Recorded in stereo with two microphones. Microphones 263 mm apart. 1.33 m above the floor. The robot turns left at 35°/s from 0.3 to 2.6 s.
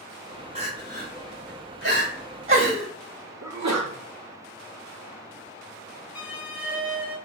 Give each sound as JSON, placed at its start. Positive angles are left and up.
{"t": 0.6, "sound": "crying", "side_deg": -20, "distance_m": 1.4}
{"t": 3.4, "sound": "a sneeze", "side_deg": -75, "distance_m": 0.9}
{"t": 6.2, "sound": "a violin", "side_deg": -5, "distance_m": 1.9}